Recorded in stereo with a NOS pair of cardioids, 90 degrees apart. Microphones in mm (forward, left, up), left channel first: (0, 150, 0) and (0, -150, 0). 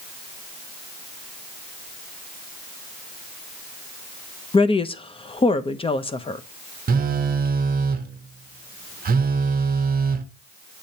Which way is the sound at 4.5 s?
20° left.